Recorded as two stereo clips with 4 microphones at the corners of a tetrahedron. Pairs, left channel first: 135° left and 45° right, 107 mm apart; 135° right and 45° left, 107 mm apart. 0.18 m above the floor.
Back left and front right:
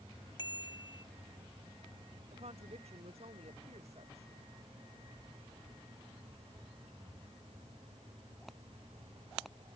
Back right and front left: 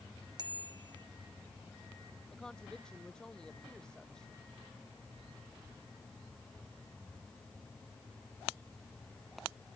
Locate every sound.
0.4 s a bicycle bell: 90° left
2.3 s a woman speaking: 55° right